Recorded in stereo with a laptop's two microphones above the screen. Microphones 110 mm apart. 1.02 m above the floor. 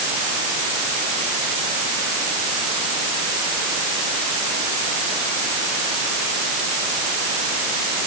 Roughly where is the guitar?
I don't hear a guitar.